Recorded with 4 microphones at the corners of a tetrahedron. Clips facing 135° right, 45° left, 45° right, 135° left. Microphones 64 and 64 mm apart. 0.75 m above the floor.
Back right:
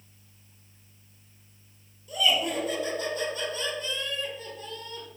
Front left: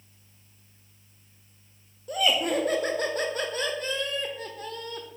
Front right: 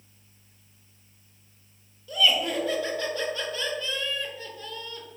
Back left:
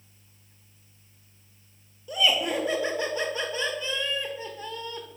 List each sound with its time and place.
2.1 s laughter: 70° left, 0.8 m